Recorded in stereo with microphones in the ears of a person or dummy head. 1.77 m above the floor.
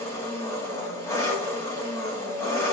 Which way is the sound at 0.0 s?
10° left (ahead or behind).